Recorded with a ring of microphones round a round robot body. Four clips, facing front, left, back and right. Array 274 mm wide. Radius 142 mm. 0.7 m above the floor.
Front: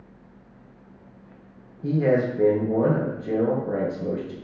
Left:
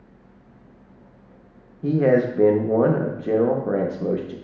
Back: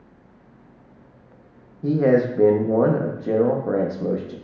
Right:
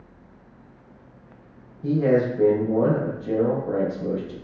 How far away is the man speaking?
About 0.5 m.